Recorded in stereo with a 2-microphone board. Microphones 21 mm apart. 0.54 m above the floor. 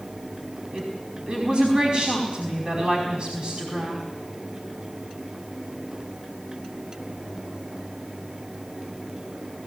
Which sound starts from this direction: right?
A woman speaking, at 0.7 s.